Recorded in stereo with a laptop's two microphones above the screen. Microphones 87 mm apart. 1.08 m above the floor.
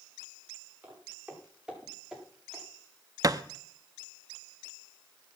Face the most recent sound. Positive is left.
turn(degrees=-40)  # may be behind; listen again after turning